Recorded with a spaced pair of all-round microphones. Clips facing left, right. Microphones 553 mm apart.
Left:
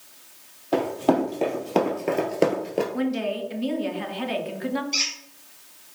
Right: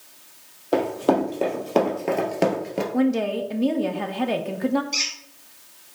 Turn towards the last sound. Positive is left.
turn(degrees=-65)  # may be behind; listen again after turning